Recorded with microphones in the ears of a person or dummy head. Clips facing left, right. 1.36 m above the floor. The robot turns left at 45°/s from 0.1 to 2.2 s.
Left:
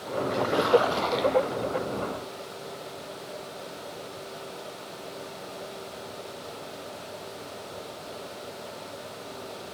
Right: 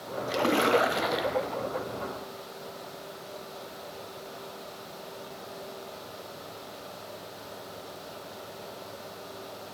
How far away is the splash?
About 0.6 m.